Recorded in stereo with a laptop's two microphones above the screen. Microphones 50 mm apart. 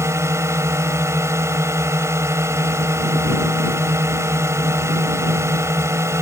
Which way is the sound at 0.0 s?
75° right (ahead or behind).